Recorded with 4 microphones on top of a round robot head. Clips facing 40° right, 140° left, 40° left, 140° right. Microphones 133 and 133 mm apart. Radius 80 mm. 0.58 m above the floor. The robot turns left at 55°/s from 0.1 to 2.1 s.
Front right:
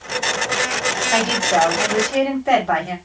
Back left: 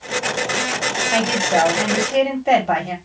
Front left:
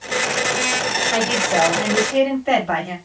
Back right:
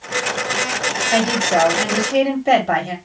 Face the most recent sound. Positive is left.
turn(degrees=-155)